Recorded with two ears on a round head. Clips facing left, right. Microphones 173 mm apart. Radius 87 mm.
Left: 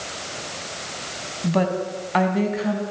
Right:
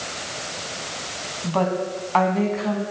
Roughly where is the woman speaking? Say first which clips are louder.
Left 1 dB; left.